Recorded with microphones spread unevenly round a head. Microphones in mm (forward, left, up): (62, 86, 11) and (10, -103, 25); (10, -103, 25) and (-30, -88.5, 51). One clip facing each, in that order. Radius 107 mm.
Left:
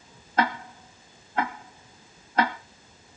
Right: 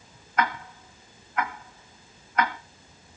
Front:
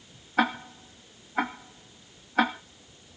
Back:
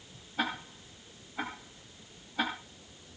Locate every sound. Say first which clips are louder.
0.4 s ticking: left 2 dB, front 8 dB; 15° left, 2 m